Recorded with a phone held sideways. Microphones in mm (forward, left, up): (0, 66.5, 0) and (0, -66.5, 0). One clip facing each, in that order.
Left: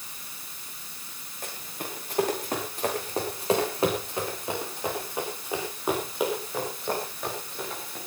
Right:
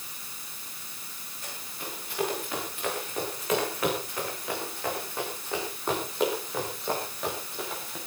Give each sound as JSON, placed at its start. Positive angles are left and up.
{"t": 1.4, "sound": "running footsteps", "side_deg": 50, "distance_m": 9.0}